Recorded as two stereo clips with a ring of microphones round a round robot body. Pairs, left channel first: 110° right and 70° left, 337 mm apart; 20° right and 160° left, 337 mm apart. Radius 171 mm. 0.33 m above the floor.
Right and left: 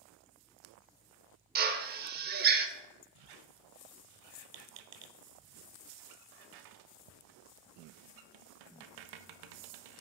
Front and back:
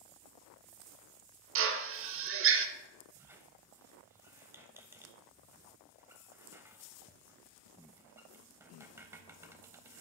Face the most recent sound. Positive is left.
turn(degrees=75)